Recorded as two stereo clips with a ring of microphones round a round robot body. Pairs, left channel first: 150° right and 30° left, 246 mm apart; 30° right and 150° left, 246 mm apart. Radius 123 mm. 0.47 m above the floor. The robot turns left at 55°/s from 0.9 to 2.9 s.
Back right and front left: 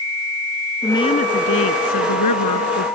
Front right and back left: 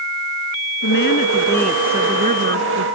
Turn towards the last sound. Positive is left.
turn(degrees=175)